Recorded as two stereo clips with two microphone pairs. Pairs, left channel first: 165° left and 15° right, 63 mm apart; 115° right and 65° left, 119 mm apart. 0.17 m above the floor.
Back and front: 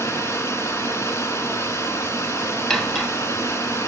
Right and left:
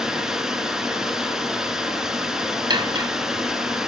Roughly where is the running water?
Behind left.